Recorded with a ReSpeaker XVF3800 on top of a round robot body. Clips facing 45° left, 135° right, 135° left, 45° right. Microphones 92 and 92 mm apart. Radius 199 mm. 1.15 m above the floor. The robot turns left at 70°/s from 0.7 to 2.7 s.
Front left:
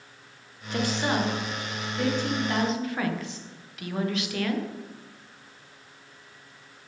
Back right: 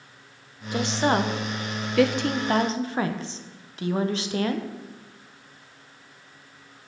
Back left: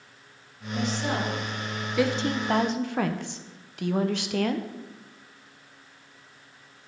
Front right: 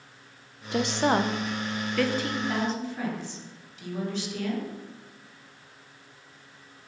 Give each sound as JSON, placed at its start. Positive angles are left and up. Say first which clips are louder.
{"t": 0.7, "sound": "a woman speaking", "louder": "back right 4 dB, front right 5 dB", "azimuth_deg": -55, "distance_m": 0.9}